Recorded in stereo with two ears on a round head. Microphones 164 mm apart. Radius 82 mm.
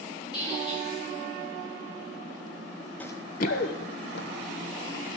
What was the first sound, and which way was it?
A squeak, 25° left (ahead or behind).